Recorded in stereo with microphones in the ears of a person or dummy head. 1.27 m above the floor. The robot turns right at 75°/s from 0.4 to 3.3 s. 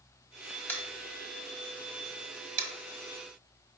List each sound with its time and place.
0.7 s tapping: 10° left (ahead or behind), 1.2 m; by 3.8 s 5° left (ahead or behind), 1.2 m